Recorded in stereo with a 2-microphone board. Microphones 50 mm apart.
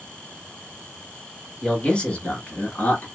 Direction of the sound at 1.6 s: 15° left (ahead or behind).